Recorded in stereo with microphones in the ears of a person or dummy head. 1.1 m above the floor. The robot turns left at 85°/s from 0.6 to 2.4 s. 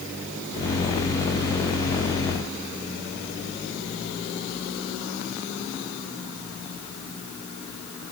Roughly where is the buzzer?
No buzzer in this recording.